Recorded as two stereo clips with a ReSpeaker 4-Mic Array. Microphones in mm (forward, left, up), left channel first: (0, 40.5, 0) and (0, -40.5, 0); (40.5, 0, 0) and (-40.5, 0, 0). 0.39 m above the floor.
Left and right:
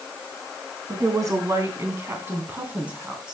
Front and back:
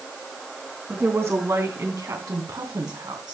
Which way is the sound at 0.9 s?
120° right.